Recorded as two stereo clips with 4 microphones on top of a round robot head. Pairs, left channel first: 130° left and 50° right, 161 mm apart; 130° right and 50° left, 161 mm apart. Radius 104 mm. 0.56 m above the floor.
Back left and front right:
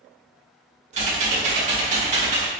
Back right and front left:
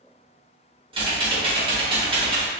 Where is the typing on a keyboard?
5° right, 1.7 m.